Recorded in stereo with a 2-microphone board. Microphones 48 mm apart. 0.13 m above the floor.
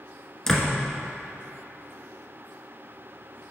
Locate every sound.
0.5 s a door slam: 5° left (ahead or behind), 1.0 m